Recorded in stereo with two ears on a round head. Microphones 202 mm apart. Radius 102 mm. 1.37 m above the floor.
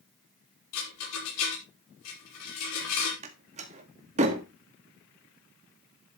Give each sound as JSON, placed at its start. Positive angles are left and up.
{"t": 0.7, "sound": "a rattle", "side_deg": 85, "distance_m": 5.0}
{"t": 3.2, "sound": "a door slam", "side_deg": -30, "distance_m": 1.9}